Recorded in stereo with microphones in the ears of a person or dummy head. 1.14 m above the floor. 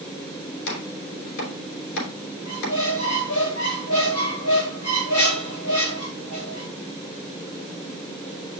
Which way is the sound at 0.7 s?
75° left (ahead or behind).